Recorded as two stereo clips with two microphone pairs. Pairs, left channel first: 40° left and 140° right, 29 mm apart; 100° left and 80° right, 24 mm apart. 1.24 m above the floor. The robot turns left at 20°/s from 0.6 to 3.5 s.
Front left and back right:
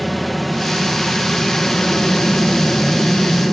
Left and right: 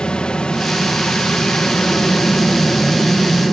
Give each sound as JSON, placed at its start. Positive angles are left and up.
{"t": 0.0, "sound": "an aircraft", "azimuth_deg": 130}